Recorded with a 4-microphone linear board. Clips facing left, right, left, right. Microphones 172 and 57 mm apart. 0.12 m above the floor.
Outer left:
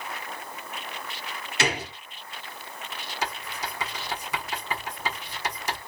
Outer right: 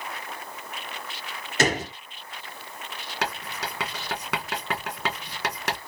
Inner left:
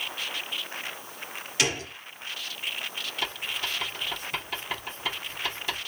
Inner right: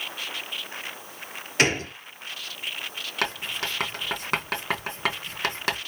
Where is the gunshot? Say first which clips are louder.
Outer right 4 dB, inner right 6 dB; 45° right (ahead or behind), 0.7 m.